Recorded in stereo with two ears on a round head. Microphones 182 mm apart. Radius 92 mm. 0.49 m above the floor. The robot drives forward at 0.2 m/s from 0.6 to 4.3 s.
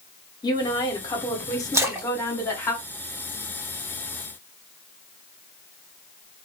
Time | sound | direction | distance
0.4 | a woman speaking | 20° left (ahead or behind) | 0.8 m
1.7 | a splash | 15° right (ahead or behind) | 0.9 m